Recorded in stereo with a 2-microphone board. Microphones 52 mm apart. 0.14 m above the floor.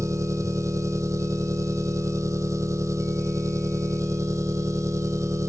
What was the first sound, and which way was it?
An engine running, 75° right (ahead or behind).